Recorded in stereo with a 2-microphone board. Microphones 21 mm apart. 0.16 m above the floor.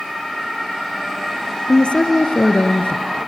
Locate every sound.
1.7 s a woman speaking: 60° left (ahead or behind), 2.5 m